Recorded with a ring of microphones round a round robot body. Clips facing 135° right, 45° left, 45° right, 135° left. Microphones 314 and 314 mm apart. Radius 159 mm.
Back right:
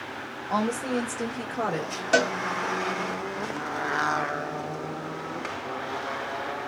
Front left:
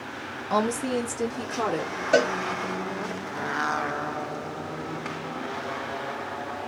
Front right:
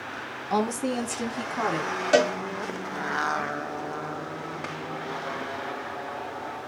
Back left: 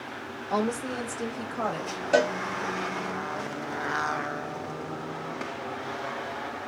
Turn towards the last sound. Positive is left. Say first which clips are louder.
# front left 3 dB, front right 2 dB
turn(degrees=-75)